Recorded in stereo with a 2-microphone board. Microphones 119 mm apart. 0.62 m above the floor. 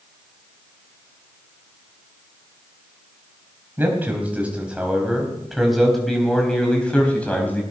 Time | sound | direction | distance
3.8 | a man speaking | 15° right (ahead or behind) | 4 m